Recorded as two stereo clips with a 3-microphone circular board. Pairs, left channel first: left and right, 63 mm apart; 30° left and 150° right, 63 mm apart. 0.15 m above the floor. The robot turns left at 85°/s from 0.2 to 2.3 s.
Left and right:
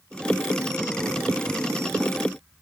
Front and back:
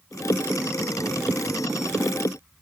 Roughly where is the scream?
I don't hear a scream.